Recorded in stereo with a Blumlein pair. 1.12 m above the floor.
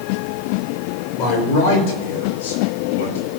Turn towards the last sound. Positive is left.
turn(degrees=65)